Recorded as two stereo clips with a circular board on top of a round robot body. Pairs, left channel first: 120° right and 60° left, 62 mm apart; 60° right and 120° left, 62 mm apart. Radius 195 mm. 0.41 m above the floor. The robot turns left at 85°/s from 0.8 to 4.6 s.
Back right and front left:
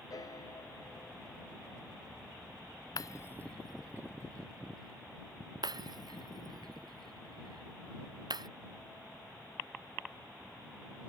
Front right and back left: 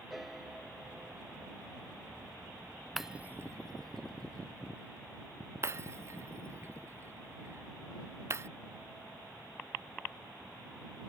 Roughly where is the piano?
Behind right.